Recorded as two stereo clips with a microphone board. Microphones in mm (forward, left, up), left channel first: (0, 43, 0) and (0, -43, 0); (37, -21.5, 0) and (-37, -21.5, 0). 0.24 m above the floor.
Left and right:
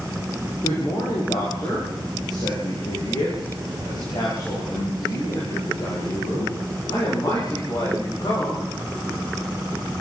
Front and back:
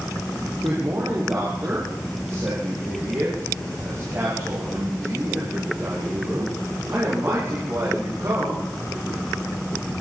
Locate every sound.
0.6 s a man speaking: 130° left, 8 m